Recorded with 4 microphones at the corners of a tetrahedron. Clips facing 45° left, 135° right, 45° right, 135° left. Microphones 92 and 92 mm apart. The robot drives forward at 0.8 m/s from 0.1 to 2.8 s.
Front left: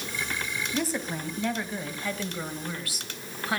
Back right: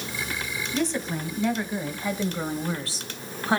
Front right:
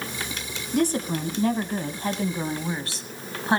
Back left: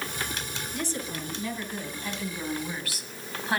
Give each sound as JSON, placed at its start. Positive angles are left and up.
{"t": 0.7, "sound": "a woman speaking", "azimuth_deg": -40, "distance_m": 2.5}